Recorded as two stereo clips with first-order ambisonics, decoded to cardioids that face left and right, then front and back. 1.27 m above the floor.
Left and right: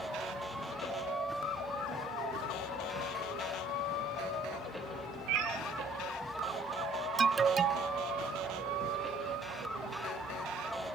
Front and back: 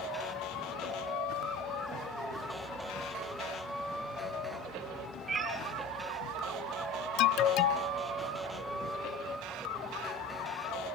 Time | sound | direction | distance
5.3 | a cat meowing | 105° right | 4.5 m
7.2 | an alarm | 25° right | 0.6 m